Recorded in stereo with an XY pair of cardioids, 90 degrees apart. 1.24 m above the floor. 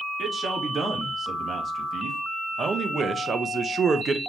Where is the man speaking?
30° right, 3 m; by 4.2 s 60° right, 0.8 m.